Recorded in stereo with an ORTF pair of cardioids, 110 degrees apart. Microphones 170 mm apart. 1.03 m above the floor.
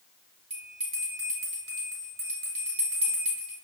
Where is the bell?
35° right, 2.0 m.